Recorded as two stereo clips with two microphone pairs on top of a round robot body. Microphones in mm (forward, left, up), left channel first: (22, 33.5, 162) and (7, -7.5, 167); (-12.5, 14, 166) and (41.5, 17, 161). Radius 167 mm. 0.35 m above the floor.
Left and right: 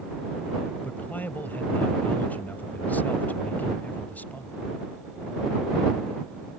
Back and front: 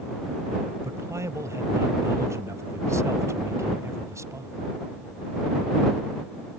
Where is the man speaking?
20° left.